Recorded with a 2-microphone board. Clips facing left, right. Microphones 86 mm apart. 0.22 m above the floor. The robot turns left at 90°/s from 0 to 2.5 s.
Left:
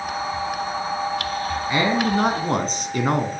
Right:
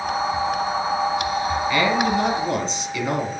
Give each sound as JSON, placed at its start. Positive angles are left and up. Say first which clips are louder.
{"t": 1.7, "sound": "a man speaking", "louder": "left 1 dB", "azimuth_deg": 150, "distance_m": 2.5}